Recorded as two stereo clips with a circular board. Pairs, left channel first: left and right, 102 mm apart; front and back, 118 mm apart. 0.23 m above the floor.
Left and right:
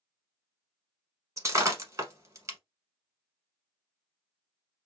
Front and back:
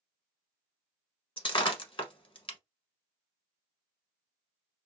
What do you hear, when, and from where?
1.4 s breaking glass: 30° right, 0.8 m